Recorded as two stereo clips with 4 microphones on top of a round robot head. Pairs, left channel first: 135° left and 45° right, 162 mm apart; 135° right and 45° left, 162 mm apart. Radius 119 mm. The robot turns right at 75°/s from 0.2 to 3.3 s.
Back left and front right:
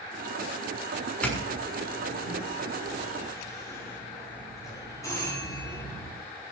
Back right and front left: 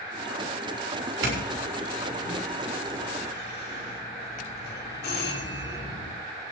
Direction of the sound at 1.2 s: 50° left.